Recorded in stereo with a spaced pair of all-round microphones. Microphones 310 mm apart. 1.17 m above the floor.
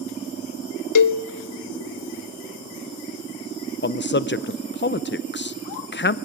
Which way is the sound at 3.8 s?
35° left (ahead or behind).